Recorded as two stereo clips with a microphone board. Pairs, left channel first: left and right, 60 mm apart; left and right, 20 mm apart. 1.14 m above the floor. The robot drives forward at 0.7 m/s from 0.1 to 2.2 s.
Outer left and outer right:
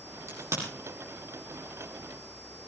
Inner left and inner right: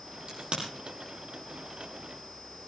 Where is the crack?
55° right (ahead or behind), 9 m.